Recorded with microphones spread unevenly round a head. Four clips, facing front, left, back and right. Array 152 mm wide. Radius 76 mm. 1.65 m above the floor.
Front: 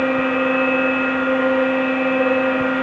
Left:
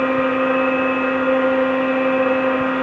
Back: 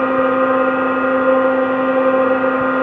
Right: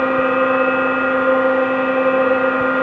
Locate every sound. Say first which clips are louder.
0.0 s a machine running: right 2 dB, back 4 dB; 175° right, 2.5 m